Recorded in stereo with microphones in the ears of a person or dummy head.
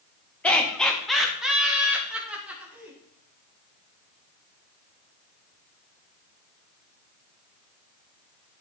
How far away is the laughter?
About 2 m.